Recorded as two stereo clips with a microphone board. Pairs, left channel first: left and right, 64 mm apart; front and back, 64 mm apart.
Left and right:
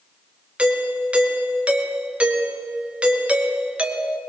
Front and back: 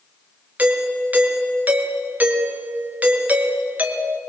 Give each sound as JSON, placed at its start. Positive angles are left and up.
{"t": 0.6, "sound": "a doorbell", "azimuth_deg": -140, "distance_m": 1.9}